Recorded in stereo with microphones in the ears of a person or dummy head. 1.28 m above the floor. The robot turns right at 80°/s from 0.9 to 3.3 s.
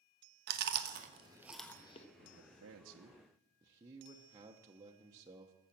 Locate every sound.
0.5 s chewing: 55° right (ahead or behind), 1.3 m; by 2.1 s 35° left (ahead or behind), 1.3 m
2.2 s a man speaking: 115° right, 0.9 m; by 5.6 s 25° right, 0.9 m